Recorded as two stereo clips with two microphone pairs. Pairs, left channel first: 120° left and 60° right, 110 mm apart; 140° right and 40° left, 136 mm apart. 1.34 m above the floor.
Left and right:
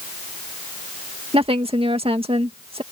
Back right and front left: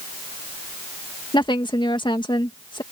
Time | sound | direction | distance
1.3 | a woman speaking | 85° right | ?